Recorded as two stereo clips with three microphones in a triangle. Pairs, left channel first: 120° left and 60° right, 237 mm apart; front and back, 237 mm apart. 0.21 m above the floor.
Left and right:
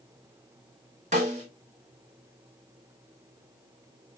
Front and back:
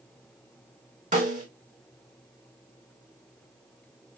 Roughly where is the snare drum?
Behind right.